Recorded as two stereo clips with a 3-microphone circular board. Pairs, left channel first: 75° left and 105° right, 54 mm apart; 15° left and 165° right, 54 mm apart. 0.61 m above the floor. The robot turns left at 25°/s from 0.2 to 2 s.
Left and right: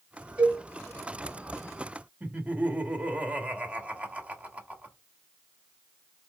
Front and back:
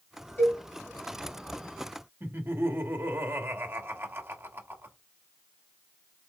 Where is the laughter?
160° right, 1.3 m.